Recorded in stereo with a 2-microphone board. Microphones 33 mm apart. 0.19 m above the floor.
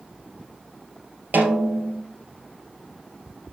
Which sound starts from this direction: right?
A snare drum, at 1.3 s.